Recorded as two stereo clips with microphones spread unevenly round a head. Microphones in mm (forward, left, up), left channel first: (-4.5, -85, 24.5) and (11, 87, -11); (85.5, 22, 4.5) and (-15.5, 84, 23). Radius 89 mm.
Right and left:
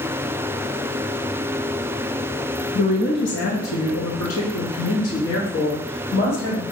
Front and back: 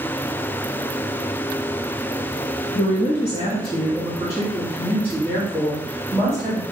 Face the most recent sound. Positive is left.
turn(degrees=-120)